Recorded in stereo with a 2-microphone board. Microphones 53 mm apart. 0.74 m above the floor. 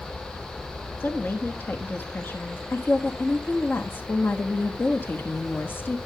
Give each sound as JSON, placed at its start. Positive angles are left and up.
{"t": 1.0, "sound": "a woman speaking", "side_deg": 40, "distance_m": 1.1}
{"t": 2.7, "sound": "a woman speaking", "side_deg": 40, "distance_m": 1.2}